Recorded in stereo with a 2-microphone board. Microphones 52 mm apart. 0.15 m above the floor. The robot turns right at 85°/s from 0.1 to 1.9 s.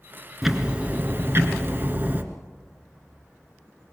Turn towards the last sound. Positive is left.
turn(degrees=-50)